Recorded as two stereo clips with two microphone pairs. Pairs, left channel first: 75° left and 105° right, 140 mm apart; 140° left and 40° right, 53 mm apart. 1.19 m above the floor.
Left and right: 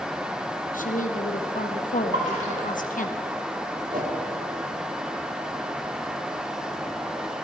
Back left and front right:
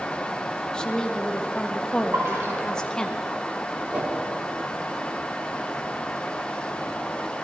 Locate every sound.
0.7 s a woman speaking: 65° left, 1.3 m
2.1 s a splash: 85° right, 7 m
3.9 s a whoosh: 105° right, 2.5 m